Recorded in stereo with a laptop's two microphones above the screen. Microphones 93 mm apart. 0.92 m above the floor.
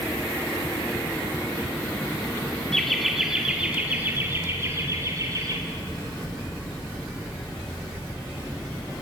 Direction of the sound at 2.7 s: 5° left (ahead or behind).